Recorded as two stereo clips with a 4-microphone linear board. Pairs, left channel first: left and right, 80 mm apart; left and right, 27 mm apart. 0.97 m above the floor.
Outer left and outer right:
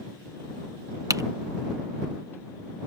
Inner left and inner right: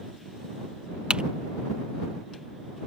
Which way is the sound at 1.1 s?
45° right (ahead or behind).